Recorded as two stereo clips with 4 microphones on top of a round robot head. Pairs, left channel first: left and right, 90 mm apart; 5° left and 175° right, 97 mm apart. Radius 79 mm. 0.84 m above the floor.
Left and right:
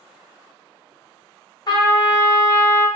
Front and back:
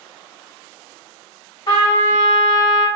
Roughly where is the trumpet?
Ahead left.